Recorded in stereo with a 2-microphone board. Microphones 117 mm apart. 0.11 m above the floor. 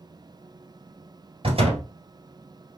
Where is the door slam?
55° right (ahead or behind), 2 m.